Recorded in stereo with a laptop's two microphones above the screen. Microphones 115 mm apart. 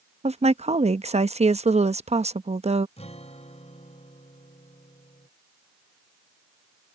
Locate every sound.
0.2 s a woman speaking: 75° right (ahead or behind)
3.0 s a guitar: 75° left (ahead or behind)